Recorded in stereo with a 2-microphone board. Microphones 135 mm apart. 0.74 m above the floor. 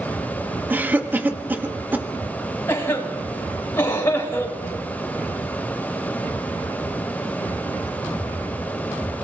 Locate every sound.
0.7 s a cough: 15° right (ahead or behind), 1.3 m
2.7 s a cough: 20° left (ahead or behind), 4 m